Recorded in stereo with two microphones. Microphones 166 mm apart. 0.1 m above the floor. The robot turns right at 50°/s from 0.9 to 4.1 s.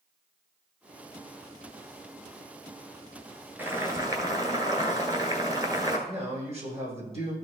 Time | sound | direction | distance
3.6 | boiling | 10° right (ahead or behind) | 1.5 m
6.1 | a man speaking | 40° right (ahead or behind) | 4 m